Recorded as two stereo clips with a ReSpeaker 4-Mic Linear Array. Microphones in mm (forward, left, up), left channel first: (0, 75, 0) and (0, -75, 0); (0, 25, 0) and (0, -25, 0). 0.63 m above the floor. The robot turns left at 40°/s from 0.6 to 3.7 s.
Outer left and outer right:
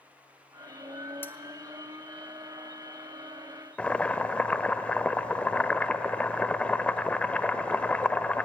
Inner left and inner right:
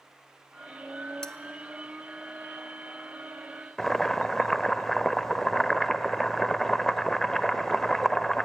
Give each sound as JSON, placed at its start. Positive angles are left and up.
{"t": 1.2, "sound": "cutlery clinking", "side_deg": 15, "distance_m": 0.6}
{"t": 3.8, "sound": "boiling", "side_deg": 10, "distance_m": 0.5}